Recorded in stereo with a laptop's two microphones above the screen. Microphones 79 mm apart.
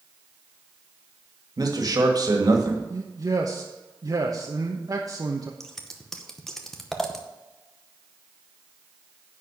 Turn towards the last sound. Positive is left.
turn(degrees=5)  # may be behind; listen again after turning